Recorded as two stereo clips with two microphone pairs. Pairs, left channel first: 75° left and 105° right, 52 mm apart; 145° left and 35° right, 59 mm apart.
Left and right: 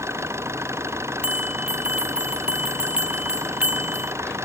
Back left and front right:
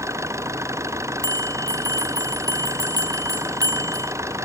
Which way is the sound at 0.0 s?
75° right.